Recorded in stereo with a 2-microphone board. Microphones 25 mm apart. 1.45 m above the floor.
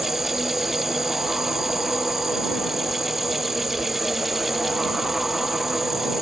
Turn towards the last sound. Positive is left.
turn(degrees=-10)  # may be behind; listen again after turning